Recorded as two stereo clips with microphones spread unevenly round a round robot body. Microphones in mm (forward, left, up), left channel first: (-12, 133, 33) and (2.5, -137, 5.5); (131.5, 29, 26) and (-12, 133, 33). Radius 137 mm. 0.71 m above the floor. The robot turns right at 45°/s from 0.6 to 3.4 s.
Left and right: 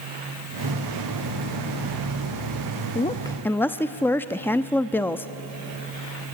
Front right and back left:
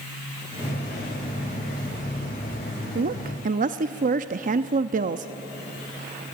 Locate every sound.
3.0 s a woman speaking: 160° left, 0.6 m; by 5.3 s straight behind, 0.6 m